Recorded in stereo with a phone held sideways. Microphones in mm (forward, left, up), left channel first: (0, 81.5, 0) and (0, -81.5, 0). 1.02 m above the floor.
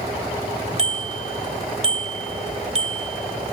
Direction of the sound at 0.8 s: 40° right (ahead or behind).